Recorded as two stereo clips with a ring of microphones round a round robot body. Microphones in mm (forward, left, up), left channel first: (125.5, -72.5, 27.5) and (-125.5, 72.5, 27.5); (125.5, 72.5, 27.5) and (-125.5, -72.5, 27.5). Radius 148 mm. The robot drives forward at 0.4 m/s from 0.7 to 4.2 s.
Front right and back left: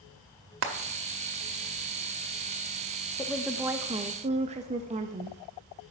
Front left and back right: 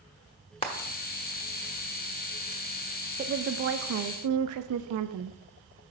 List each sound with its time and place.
0.6 s frying: 100° left, 0.9 m; by 2.6 s 135° left, 1.3 m
3.2 s a woman speaking: 100° right, 0.5 m; by 5.4 s 145° right, 0.7 m